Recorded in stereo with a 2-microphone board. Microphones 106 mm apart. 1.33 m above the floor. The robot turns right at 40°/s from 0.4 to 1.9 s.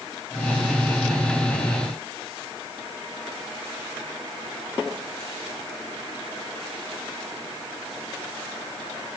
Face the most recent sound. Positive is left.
No sound to turn to.